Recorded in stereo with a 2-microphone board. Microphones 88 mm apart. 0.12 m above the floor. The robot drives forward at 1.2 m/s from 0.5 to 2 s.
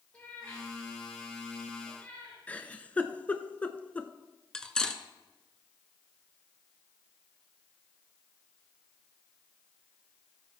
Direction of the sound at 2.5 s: 15° left (ahead or behind).